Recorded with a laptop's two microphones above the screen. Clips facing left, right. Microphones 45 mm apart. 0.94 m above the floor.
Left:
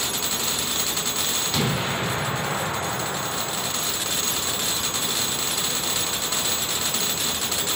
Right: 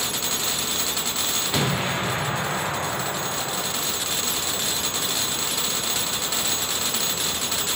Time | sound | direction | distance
1.5 | an explosion | 15° right (ahead or behind) | 2.5 m